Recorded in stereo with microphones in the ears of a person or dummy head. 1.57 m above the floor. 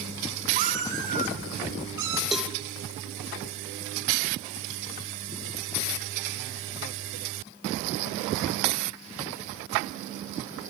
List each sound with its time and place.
0.6 s a cat meowing: 45° right (ahead or behind), 2 m; by 2.2 s 15° right (ahead or behind), 3 m
2.3 s a cowbell: centre (ahead or behind), 0.8 m